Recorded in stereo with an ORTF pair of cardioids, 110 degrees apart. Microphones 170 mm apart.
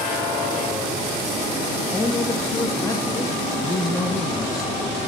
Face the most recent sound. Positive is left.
turn(degrees=20)